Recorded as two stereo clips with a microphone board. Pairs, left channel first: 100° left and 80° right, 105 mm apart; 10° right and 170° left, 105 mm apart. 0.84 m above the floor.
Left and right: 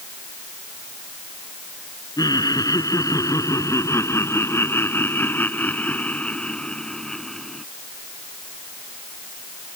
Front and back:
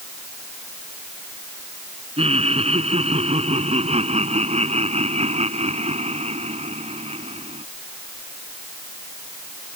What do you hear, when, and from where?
2.2 s laughter: 150° left; by 7.7 s 170° right